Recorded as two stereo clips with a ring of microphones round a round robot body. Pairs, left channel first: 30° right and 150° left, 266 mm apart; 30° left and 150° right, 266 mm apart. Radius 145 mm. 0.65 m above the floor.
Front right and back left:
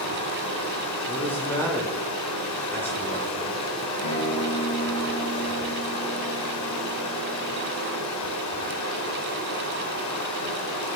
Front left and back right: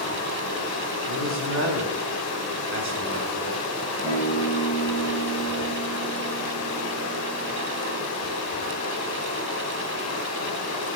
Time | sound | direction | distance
0.0 | running water | 5° right | 2.5 m
1.1 | a man speaking | 110° right | 3 m
4.0 | a guitar | 45° right | 4.5 m